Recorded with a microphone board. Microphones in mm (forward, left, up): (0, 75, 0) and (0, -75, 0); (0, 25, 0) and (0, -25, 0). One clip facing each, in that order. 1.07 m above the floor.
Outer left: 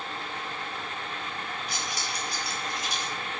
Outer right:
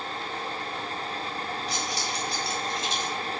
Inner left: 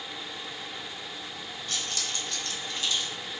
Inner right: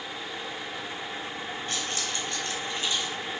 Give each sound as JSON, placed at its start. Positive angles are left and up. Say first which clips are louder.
{"t": 1.7, "sound": "keys jangling", "louder": "outer right 3 dB, even", "side_deg": -35, "distance_m": 3.5}